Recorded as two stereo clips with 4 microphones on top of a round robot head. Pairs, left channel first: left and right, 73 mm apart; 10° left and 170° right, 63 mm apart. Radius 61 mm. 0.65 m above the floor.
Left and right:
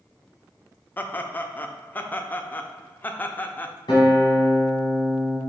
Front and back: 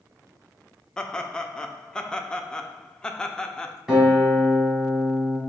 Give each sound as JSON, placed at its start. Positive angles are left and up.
{"t": 1.0, "sound": "laughter", "azimuth_deg": 75, "distance_m": 0.5}
{"t": 3.9, "sound": "a guitar", "azimuth_deg": 115, "distance_m": 1.6}